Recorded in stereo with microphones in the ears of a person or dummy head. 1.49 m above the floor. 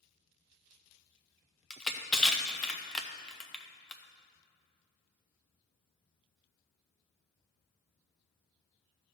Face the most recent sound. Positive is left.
turn(degrees=5)  # may be behind; listen again after turning